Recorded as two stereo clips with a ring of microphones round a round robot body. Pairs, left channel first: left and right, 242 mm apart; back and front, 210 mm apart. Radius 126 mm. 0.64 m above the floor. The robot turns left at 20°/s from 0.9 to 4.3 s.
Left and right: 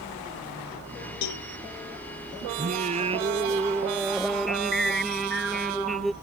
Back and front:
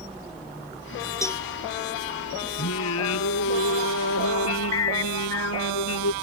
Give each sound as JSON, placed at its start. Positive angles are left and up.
{"t": 1.2, "sound": "a cowbell", "azimuth_deg": 105}
{"t": 2.6, "sound": "singing", "azimuth_deg": -145}